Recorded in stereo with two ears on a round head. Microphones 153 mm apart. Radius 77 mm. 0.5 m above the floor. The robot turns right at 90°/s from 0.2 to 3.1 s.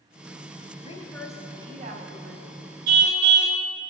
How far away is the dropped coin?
I don't hear a dropped coin.